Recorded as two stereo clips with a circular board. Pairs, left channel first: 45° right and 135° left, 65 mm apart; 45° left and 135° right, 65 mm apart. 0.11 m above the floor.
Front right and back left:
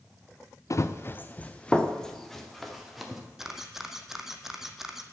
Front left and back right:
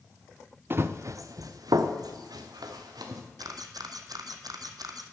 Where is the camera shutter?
140° right, 1.0 m.